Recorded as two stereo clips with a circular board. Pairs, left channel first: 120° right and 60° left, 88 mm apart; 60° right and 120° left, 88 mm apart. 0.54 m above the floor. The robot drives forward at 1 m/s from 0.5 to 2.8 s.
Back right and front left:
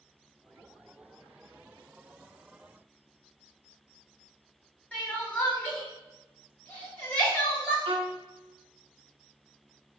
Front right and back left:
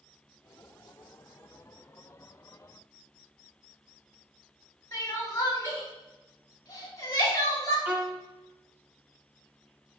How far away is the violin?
About 0.8 m.